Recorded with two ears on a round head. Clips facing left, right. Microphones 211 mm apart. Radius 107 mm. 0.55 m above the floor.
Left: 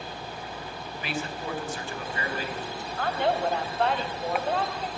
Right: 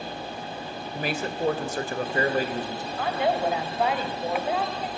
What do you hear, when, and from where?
0.9 s a man speaking: 35° right (ahead or behind), 2.5 m
3.0 s a woman speaking: 5° right (ahead or behind), 3 m